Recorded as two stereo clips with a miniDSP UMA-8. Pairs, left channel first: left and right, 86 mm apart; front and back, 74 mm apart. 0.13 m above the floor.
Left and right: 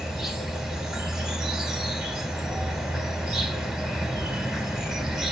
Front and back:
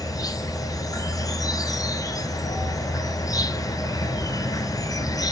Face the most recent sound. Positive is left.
turn(degrees=-5)